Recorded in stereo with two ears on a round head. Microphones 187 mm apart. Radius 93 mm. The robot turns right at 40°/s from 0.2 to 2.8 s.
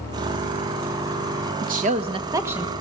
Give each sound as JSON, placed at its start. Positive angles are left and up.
{"t": 1.6, "sound": "a woman speaking", "azimuth_deg": -45, "distance_m": 1.6}